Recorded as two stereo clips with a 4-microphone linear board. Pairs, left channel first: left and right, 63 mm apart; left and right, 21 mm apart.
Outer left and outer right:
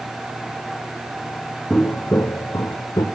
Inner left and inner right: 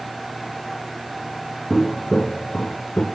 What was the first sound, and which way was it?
Footsteps, 20° left (ahead or behind).